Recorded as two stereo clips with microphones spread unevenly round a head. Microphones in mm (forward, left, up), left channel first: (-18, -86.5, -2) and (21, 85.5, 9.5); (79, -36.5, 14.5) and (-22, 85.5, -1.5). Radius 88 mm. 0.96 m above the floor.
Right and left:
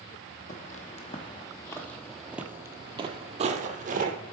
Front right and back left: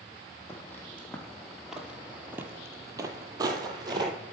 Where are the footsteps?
115° right, 1.2 m; by 4.2 s 70° left, 1.4 m.